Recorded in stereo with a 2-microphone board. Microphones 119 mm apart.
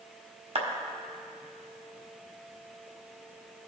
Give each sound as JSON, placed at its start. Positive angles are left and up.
{"t": 0.6, "sound": "a clap", "side_deg": -65, "distance_m": 1.4}